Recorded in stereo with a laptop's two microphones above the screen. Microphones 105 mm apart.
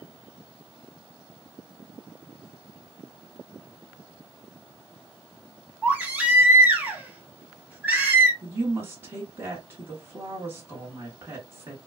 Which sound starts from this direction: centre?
A baby crying, at 5.8 s.